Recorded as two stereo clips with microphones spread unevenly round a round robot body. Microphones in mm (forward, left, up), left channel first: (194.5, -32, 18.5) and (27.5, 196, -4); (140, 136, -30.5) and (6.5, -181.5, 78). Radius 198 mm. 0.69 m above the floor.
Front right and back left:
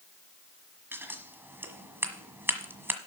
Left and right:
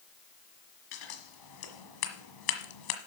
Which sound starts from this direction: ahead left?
Scissors, at 0.9 s.